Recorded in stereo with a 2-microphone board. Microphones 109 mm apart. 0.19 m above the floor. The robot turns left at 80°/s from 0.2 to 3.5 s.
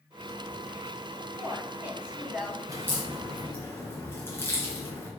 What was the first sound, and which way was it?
A woman speaking, 20° right (ahead or behind).